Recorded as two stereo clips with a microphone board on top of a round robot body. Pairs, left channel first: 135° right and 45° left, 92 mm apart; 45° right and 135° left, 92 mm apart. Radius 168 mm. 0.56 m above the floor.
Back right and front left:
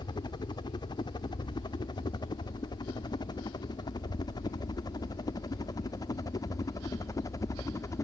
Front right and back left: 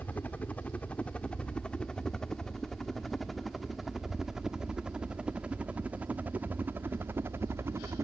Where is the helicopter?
115° right; by 8.1 s 175° right.